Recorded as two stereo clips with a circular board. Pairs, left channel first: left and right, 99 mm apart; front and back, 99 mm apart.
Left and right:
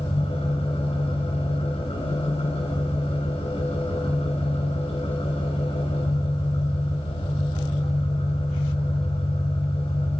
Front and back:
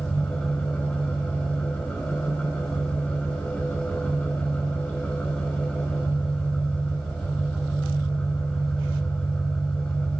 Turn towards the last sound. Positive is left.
turn(degrees=80)